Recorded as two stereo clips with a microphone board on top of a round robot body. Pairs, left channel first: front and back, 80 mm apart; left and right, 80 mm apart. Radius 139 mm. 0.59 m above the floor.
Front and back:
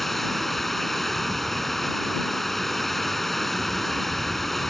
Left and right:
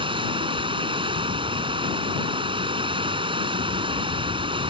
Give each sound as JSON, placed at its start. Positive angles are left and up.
{"t": 0.0, "sound": "running water", "azimuth_deg": -90}